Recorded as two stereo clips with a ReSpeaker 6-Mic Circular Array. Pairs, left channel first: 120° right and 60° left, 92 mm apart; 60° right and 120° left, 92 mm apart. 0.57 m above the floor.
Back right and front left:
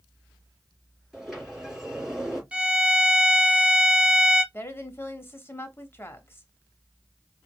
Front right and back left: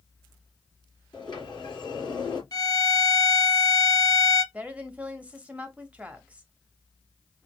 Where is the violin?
20° right, 0.8 m.